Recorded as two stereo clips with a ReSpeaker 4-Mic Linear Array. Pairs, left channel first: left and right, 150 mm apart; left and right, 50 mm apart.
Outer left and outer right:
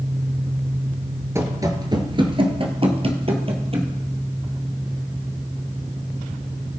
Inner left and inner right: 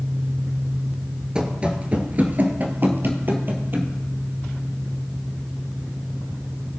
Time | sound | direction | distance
1.4 | running footsteps | 20° right (ahead or behind) | 1.4 m